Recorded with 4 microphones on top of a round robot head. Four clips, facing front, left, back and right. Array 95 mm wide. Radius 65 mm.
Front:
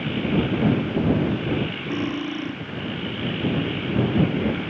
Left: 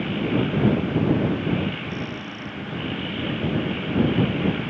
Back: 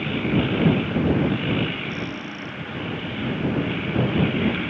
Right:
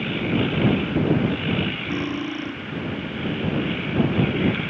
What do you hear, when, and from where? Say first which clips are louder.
1.9 s cutlery clinking: right 6 dB, front 5 dB; 50° right